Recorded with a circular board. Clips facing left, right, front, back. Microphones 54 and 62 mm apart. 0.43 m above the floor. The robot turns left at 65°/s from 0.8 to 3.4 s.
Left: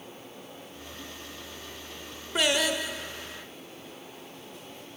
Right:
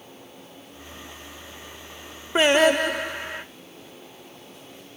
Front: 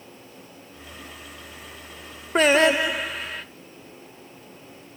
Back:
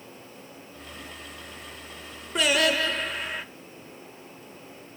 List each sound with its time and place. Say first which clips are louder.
2.4 s singing: right 9 dB, front 6 dB; 35° right, 0.8 m; by 3.5 s 105° right, 0.8 m